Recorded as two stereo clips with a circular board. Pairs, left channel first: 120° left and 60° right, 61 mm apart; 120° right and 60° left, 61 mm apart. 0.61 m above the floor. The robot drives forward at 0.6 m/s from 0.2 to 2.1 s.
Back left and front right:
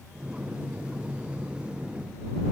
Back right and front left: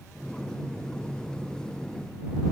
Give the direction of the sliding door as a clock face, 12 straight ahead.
No sliding door in this recording.